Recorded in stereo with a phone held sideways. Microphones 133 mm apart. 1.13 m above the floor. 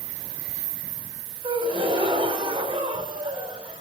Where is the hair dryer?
I don't hear a hair dryer.